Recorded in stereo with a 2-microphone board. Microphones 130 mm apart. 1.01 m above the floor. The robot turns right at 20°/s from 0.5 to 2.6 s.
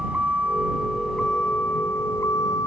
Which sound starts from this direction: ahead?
A vehicle, at 0.0 s.